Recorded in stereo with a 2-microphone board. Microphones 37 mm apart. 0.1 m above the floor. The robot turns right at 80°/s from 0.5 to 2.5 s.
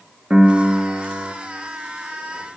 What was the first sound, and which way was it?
A piano, 140° right.